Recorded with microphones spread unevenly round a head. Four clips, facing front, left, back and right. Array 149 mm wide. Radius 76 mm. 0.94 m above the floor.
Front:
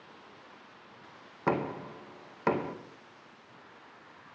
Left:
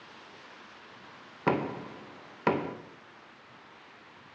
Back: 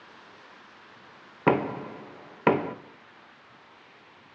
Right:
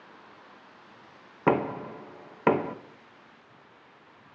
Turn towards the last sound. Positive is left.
turn(degrees=-150)